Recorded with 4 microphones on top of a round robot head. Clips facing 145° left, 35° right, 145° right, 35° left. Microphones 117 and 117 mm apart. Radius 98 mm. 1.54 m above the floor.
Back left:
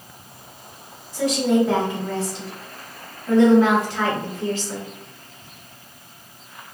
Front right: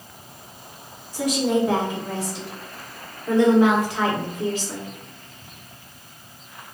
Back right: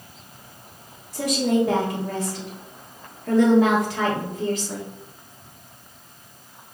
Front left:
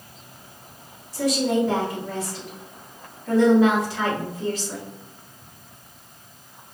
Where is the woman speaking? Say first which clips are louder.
Back left 2 dB, even; 110° right, 1.5 m.